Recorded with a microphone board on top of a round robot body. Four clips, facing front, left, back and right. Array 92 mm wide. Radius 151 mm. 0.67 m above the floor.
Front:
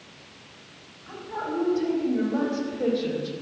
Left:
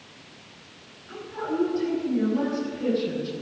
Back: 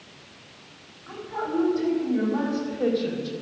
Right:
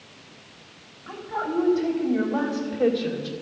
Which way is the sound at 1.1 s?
80° right.